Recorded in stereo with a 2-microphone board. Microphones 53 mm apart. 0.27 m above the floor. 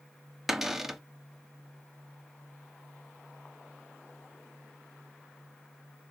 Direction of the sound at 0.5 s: 5° right (ahead or behind).